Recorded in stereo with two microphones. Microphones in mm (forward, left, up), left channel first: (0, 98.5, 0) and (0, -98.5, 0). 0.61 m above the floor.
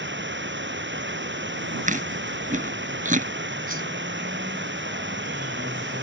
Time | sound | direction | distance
0.0 | running water | 75° right (ahead or behind) | ?
1.9 | chewing | 45° right (ahead or behind) | ?
3.7 | a whoosh | 50° right (ahead or behind) | ?